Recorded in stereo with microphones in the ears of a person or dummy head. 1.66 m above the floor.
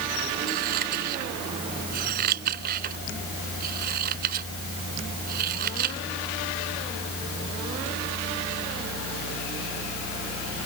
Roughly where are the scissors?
Right.